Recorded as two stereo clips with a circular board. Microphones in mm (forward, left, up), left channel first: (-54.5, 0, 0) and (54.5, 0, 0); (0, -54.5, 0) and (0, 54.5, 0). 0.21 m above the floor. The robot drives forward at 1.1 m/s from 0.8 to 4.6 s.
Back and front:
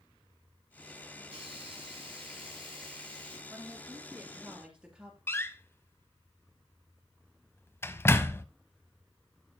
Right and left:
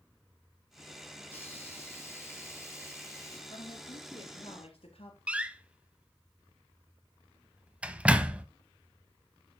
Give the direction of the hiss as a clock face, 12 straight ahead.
1 o'clock.